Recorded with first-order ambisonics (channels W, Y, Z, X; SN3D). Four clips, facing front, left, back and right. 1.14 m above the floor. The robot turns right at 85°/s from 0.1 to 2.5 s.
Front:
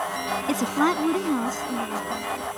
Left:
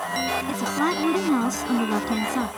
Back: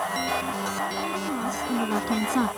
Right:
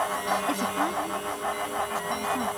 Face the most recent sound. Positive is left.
turn(degrees=165)